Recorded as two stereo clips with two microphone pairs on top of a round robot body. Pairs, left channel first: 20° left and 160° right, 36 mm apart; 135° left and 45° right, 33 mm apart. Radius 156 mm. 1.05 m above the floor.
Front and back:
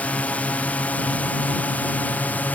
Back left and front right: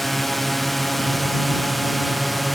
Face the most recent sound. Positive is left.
turn(degrees=40)